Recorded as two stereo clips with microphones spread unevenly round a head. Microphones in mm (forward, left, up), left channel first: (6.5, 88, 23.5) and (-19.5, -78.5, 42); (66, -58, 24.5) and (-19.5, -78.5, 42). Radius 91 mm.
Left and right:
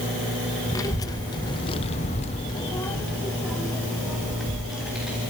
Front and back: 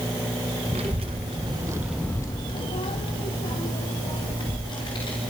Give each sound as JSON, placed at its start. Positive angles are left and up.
{"t": 0.7, "sound": "a child speaking", "azimuth_deg": 155, "distance_m": 1.9}